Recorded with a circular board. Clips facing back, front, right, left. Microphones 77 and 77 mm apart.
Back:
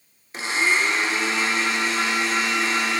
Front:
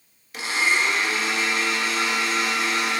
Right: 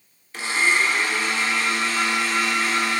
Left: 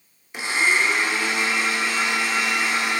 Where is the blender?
150° left, 0.6 m.